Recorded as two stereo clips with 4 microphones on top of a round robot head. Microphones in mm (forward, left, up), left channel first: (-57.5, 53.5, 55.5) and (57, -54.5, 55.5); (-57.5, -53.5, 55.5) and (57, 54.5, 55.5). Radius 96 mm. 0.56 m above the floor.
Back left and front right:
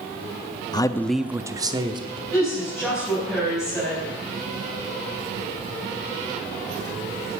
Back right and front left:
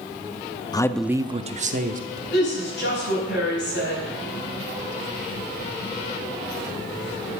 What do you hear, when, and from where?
0.7 s a man speaking: straight behind, 0.7 m; by 2.2 s 15° left, 1.5 m
2.3 s a woman speaking: 130° right, 5 m